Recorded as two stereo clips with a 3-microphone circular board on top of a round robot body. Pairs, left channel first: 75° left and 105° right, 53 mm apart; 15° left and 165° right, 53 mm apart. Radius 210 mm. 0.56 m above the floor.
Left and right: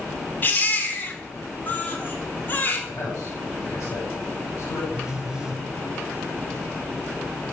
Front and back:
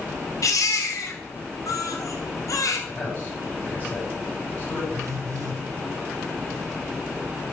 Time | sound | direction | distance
0.4 | a baby crying | 25° left | 3.5 m
2.9 | a man speaking | 75° left | 8 m
4.9 | a phone buzzing | 175° left | 5 m